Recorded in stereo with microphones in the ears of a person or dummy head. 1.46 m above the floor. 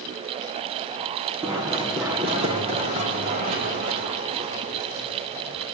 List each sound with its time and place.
1.4 s running footsteps: 10° right (ahead or behind), 3.5 m; by 5.7 s 60° right (ahead or behind), 4 m